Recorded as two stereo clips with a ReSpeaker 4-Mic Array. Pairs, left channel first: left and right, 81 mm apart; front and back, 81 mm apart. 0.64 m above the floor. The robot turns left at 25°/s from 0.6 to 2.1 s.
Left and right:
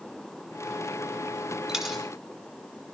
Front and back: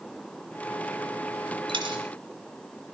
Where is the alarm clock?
I don't hear an alarm clock.